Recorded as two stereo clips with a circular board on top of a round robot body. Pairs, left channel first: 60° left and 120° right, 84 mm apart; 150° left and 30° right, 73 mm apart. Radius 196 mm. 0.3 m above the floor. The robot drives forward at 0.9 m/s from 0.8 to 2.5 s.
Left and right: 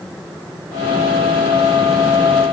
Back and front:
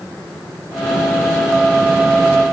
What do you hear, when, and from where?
Only background noise.